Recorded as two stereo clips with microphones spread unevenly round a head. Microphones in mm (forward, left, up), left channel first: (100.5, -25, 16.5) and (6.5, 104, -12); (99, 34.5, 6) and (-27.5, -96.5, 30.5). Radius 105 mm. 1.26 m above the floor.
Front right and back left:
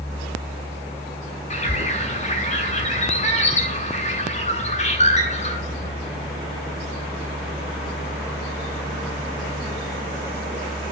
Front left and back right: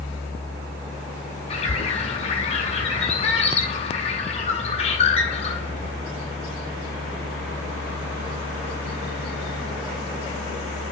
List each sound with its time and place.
1.5 s a bird: 10° right, 6.5 m